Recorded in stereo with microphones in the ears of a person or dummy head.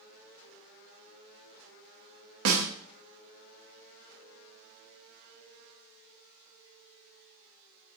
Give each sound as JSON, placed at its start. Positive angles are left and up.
{"t": 2.5, "sound": "a snare drum", "side_deg": -70, "distance_m": 0.6}